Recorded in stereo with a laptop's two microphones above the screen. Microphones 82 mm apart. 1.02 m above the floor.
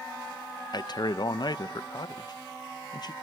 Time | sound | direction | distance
0.7 | a man speaking | 50° left (ahead or behind) | 0.7 m